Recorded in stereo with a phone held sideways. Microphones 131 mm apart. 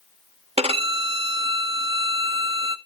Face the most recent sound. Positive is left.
turn(degrees=-50)  # may be behind; listen again after turning